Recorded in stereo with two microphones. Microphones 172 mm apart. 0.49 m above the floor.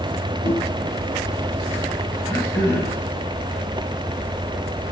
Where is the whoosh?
70° right (ahead or behind), 4 m.